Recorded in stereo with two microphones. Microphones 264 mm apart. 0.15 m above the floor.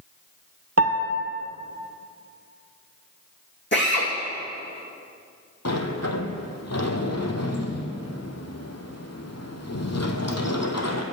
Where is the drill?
40° left (ahead or behind), 2.5 m.